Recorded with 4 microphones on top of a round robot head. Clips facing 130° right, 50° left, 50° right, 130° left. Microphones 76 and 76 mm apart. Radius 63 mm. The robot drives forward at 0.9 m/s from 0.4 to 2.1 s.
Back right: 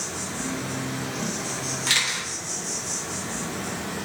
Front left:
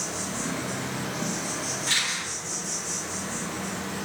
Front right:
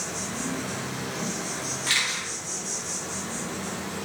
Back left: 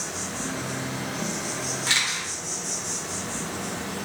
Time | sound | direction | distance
0.0 | an insect | 40° left | 1.1 m
1.9 | a camera shutter | 165° right | 1.2 m